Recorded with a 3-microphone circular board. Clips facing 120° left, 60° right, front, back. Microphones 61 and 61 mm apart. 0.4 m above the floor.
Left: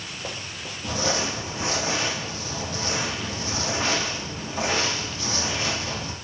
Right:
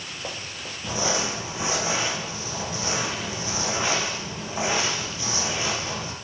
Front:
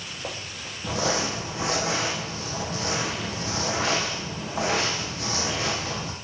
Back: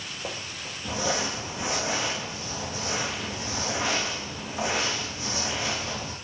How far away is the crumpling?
About 5 m.